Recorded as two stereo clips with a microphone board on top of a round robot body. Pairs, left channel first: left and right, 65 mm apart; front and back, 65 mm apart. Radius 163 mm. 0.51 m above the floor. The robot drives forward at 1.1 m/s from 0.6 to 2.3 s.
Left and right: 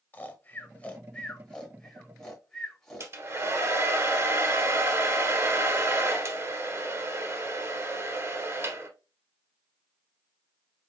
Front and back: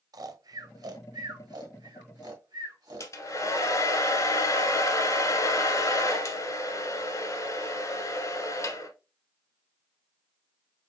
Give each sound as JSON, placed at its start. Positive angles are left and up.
{"t": 0.1, "sound": "snoring", "azimuth_deg": 155, "distance_m": 0.8}
{"t": 3.0, "sound": "a hair dryer", "azimuth_deg": -40, "distance_m": 1.3}